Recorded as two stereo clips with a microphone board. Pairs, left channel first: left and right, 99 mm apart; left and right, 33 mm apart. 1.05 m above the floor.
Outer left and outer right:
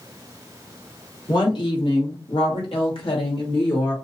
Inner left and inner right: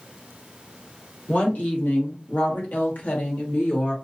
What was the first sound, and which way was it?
A woman speaking, 45° left (ahead or behind).